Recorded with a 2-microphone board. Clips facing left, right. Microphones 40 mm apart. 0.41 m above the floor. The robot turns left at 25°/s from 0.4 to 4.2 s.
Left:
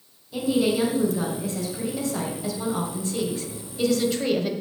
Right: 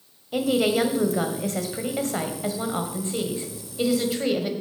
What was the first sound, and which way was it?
A woman speaking, 80° right.